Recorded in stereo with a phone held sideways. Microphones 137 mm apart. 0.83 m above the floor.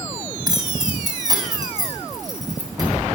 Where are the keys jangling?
30° right (ahead or behind), 3.5 m.